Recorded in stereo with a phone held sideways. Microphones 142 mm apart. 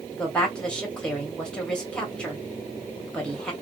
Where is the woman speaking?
5° left (ahead or behind), 1.3 m.